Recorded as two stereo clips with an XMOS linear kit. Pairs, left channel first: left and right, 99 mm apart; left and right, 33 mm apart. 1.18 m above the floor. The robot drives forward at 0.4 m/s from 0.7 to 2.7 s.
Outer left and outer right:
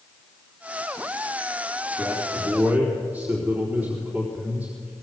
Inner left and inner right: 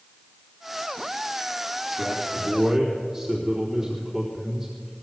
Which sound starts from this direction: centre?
A man speaking, at 2.0 s.